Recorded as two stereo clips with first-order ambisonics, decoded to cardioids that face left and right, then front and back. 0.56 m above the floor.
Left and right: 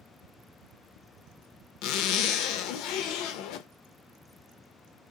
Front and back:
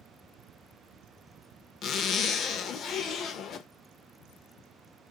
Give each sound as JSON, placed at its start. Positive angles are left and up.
{"t": 1.8, "sound": "a zipper", "azimuth_deg": 60, "distance_m": 0.5}